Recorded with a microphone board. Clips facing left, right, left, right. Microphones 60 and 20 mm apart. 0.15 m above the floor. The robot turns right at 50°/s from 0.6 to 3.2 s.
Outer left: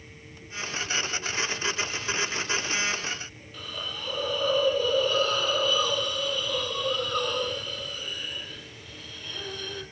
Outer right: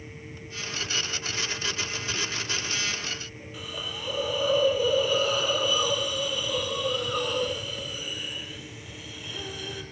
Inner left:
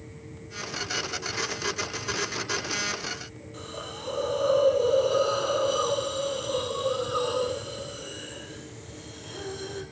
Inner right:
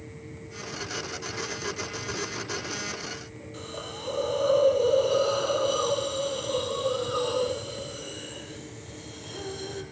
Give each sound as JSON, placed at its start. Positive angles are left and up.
{"t": 3.5, "sound": "a hiss", "side_deg": -10, "distance_m": 4.5}